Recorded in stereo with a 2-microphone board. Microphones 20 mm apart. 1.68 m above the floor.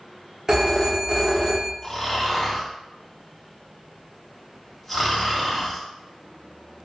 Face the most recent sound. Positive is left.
turn(degrees=5)  # may be behind; listen again after turning